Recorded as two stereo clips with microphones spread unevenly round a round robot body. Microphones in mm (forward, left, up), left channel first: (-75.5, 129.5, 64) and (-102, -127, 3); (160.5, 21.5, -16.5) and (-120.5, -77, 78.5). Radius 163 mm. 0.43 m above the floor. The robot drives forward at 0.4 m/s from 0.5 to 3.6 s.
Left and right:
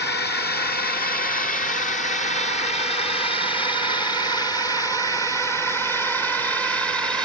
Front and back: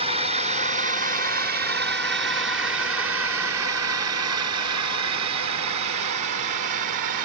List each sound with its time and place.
0.0 s a drone: 110° left; by 7.3 s 175° right